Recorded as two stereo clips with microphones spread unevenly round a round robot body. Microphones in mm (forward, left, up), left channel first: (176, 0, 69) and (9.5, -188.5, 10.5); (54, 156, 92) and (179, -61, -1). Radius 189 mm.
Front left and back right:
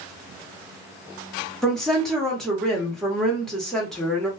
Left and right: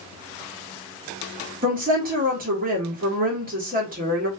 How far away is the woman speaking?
About 1.1 m.